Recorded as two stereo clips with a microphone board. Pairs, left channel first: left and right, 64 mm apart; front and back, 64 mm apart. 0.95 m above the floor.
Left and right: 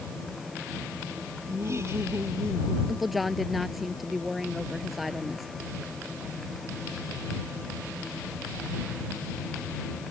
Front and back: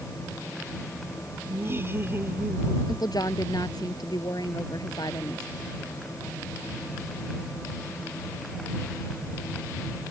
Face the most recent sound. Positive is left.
turn(degrees=-5)